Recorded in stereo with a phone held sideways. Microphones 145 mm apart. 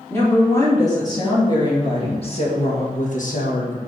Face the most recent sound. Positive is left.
turn(degrees=70)  # may be behind; listen again after turning